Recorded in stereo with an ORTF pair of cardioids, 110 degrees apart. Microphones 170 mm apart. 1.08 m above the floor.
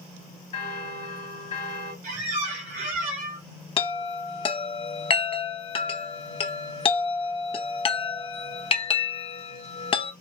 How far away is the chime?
About 0.8 m.